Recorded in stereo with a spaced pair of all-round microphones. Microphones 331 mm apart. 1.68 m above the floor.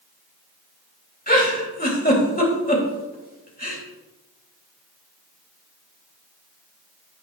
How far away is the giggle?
About 1.9 m.